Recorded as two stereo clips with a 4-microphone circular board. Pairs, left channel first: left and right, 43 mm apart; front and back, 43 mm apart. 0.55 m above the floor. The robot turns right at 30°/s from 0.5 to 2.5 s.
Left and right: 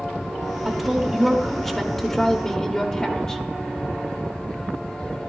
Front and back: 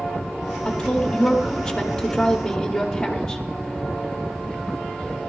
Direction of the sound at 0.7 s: 10° right.